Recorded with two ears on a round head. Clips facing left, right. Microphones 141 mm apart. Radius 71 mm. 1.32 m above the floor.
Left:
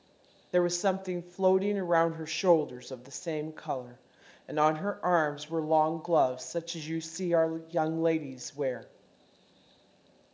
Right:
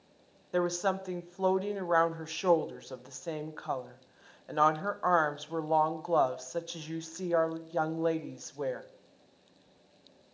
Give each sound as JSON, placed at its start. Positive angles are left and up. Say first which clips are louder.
{"t": 0.5, "sound": "a woman speaking", "louder": "left 3 dB", "side_deg": 15, "distance_m": 0.7}